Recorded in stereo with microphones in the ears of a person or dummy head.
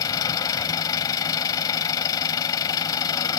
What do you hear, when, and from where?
0.0 s an engine running: 25° left (ahead or behind)